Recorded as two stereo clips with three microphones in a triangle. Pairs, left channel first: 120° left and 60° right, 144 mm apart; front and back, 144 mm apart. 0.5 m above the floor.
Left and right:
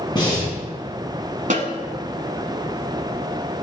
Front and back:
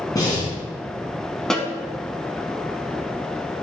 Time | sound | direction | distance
0.1 | breathing | 65° left | 3.5 m
1.5 | a snare drum | 85° right | 1.1 m